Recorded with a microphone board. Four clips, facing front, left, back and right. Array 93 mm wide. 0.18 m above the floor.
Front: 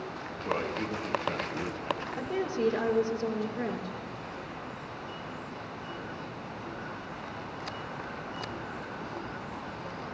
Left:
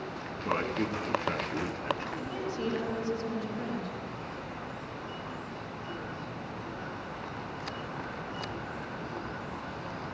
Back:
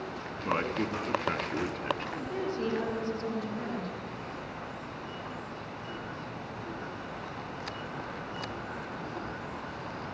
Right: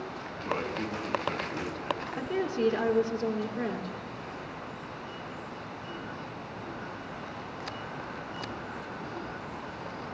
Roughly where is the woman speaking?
Right.